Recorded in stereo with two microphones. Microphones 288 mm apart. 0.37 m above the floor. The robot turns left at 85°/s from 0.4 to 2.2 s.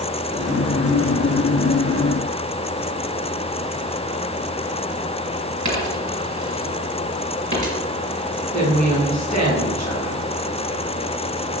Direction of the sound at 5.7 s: 85° right.